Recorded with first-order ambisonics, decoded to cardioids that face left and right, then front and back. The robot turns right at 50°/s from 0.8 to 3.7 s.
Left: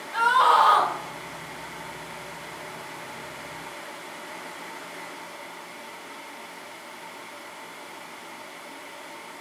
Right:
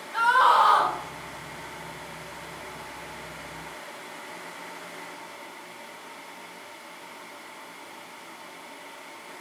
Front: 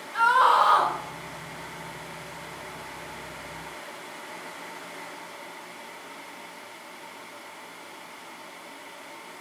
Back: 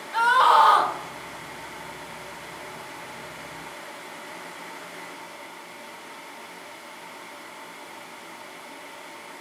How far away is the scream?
About 1.1 m.